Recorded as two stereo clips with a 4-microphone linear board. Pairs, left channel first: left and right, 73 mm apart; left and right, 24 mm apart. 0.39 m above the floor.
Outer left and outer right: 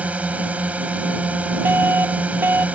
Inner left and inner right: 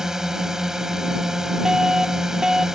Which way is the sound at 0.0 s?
20° right (ahead or behind).